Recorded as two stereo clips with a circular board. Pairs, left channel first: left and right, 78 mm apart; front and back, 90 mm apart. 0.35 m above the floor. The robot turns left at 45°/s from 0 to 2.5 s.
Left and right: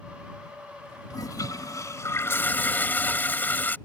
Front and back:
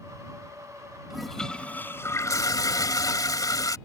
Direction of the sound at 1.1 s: 95° left.